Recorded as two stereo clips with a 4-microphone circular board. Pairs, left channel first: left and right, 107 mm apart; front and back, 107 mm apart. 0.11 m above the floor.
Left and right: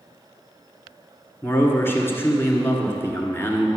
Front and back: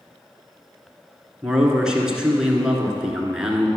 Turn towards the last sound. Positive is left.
turn(degrees=105)